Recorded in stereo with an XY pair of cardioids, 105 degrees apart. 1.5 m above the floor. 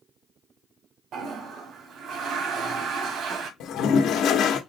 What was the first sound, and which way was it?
A toilet flushing, 70° right.